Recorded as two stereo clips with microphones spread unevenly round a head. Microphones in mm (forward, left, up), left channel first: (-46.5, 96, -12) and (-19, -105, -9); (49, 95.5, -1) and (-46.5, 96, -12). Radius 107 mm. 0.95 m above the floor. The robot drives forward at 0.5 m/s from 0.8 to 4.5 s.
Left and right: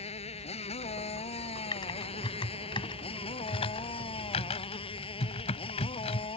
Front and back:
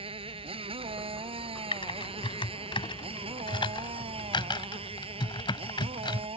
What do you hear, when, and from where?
0.0 s a motorcycle: 160° left
1.7 s typing on a keyboard: 25° left; by 6.3 s 35° left